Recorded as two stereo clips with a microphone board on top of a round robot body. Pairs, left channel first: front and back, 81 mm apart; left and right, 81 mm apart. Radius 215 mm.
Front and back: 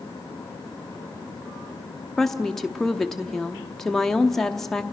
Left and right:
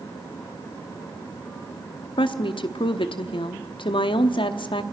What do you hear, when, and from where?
2.2 s a woman speaking: 85° left, 0.8 m